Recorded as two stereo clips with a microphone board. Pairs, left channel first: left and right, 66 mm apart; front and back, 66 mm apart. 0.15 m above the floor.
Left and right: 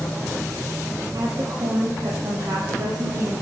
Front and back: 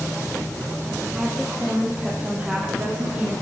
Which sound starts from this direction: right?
A woman speaking, at 1.1 s.